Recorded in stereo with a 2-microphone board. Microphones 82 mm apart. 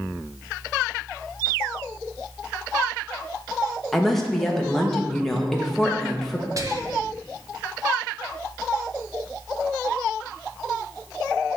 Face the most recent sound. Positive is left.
turn(degrees=-45)  # may be behind; listen again after turning